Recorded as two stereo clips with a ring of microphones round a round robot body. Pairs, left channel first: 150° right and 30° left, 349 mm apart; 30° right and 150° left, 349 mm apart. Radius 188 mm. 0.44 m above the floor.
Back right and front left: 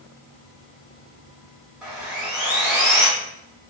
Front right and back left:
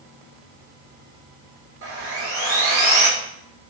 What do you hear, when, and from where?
1.8 s sawing: 115° left, 1.6 m